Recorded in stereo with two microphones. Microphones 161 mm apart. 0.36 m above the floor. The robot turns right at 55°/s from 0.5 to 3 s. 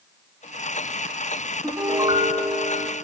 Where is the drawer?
No drawer in this recording.